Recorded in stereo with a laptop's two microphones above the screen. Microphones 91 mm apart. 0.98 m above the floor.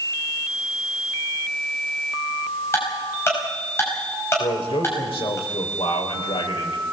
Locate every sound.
2.7 s ticking: 30° left (ahead or behind), 5.5 m
4.4 s a man speaking: 80° left, 5 m